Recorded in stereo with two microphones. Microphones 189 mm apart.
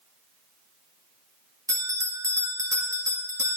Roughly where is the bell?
Centre.